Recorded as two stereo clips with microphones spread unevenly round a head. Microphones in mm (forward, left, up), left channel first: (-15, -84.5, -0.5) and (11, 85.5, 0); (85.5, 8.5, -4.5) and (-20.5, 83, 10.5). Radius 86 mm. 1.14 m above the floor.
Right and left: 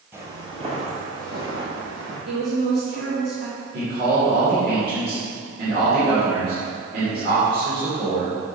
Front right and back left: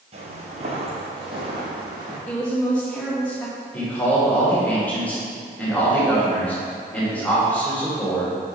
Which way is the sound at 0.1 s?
155° left.